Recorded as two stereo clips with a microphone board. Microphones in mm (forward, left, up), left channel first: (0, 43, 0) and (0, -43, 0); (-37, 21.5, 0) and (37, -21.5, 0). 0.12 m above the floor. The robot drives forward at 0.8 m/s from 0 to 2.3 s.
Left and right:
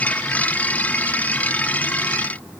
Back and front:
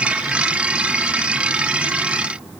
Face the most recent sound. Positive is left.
No sound to turn to.